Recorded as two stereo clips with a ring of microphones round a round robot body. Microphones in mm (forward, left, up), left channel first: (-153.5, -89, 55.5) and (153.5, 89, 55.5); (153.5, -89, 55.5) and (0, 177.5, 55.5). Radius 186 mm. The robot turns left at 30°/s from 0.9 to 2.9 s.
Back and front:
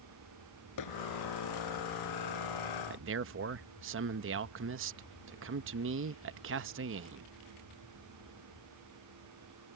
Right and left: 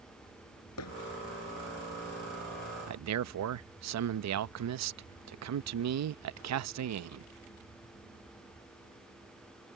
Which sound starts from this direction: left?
A man speaking, at 2.9 s.